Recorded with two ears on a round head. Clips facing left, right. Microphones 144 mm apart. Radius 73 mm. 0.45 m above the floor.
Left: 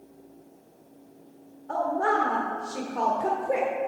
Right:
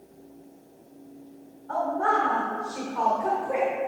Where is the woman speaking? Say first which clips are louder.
Even; 40° left (ahead or behind), 1.0 m.